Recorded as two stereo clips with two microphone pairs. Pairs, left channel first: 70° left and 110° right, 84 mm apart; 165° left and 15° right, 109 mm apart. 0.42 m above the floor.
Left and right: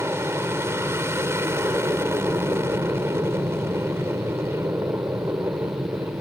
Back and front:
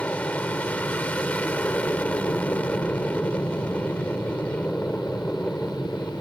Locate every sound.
0.0 s an aircraft: 125° right